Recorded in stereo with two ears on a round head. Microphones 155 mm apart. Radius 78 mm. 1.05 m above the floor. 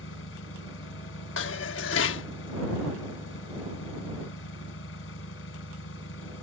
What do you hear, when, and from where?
0.0 s an engine running: 80° left
1.4 s dishes clattering: 80° left